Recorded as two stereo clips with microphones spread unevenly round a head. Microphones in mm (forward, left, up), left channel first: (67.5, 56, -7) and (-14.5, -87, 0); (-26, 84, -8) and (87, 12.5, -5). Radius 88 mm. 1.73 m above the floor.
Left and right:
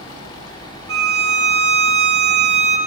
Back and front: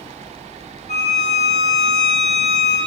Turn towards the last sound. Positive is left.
turn(degrees=-155)